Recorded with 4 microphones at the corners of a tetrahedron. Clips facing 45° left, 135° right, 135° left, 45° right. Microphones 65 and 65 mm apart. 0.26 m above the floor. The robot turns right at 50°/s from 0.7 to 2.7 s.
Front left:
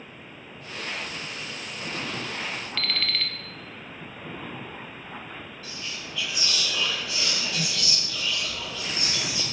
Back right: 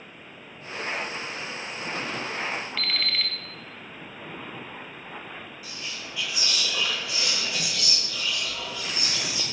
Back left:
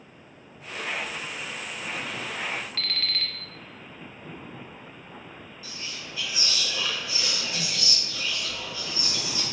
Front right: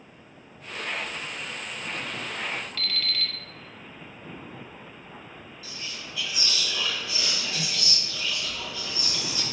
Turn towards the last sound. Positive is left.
turn(degrees=155)